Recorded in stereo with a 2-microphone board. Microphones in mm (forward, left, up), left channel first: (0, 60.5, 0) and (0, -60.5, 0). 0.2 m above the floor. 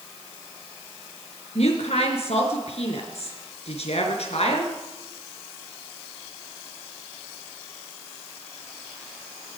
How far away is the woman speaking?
About 3.5 m.